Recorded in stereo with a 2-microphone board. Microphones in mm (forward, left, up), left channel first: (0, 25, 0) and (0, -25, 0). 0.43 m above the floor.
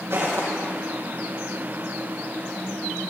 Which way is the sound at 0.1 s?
55° right (ahead or behind).